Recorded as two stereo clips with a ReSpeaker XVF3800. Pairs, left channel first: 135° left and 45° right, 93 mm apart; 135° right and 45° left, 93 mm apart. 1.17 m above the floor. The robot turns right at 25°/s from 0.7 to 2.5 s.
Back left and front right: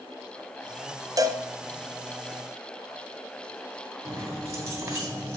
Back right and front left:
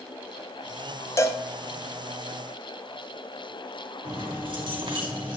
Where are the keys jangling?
20° left, 2.5 m.